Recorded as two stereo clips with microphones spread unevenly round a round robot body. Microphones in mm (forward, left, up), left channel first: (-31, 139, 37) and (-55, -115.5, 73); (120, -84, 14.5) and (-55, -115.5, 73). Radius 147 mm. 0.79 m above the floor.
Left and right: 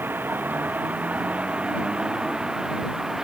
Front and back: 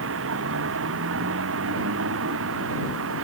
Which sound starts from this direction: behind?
A vehicle, at 0.0 s.